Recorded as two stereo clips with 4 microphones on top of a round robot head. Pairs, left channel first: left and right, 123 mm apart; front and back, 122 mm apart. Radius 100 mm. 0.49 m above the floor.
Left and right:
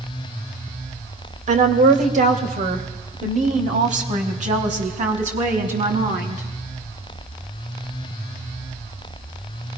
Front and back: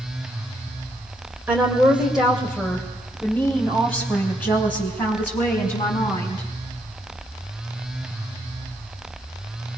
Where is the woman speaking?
100° right, 2.5 m; by 6.4 s 70° right, 5 m.